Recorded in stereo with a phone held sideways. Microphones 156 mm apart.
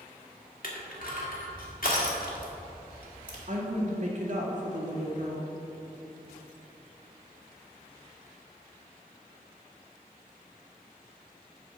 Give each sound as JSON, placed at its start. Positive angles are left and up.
{"t": 0.6, "sound": "crushing", "side_deg": 65, "distance_m": 1.9}
{"t": 3.5, "sound": "a woman speaking", "side_deg": -55, "distance_m": 1.8}